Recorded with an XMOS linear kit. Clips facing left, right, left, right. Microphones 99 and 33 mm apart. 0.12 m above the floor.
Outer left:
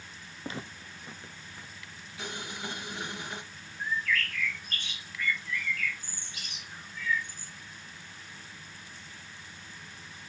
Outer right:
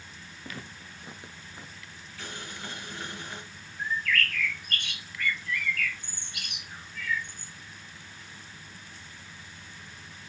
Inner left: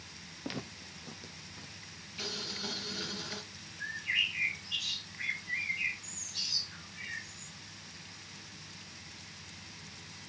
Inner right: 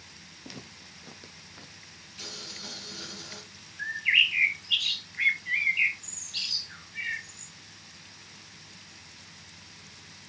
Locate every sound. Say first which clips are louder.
0.4 s footsteps: outer left 4 dB, inner left 5 dB; 30° left (ahead or behind), 0.6 m; by 1.8 s 30° right (ahead or behind), 1.5 m
2.2 s boiling: outer left 2 dB, inner left 3 dB; 15° left (ahead or behind), 1.7 m
3.8 s a bird: outer right 1 dB, inner right 9 dB; 60° right (ahead or behind), 1.0 m